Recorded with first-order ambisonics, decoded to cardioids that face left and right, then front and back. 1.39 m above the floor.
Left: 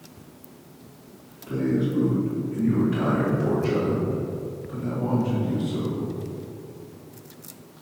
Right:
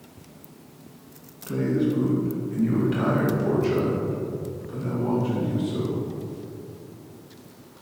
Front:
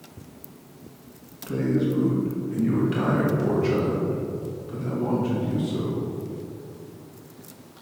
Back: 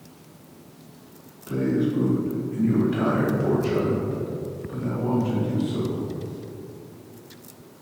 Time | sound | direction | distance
1.5 | a man speaking | 40° right | 2 m